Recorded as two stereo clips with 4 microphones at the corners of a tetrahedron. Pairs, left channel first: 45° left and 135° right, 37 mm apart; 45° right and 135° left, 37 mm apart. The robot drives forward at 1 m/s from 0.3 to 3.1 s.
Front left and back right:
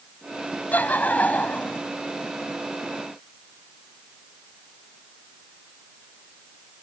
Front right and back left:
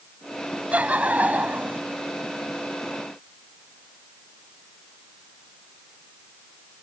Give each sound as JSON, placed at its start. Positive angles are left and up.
{"t": 0.7, "sound": "laughter", "azimuth_deg": 85}